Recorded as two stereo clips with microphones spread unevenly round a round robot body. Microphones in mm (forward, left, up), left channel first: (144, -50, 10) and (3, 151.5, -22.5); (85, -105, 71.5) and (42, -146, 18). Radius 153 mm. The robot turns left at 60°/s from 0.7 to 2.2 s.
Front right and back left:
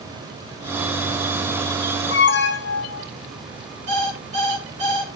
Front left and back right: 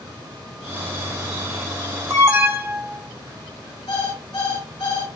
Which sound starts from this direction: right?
An alarm, at 2.1 s.